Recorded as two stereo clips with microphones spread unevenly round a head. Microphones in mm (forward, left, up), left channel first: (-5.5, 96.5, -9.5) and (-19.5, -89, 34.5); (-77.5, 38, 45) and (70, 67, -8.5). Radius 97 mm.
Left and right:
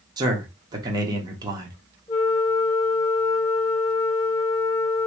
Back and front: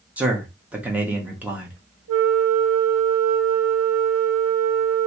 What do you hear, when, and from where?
0.2 s a man speaking: 15° right, 1.0 m
2.1 s a flute: 5° right, 1.9 m